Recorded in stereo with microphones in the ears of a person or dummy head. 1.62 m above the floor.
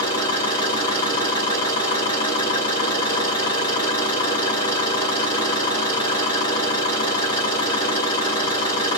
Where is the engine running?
30° left (ahead or behind), 0.9 m.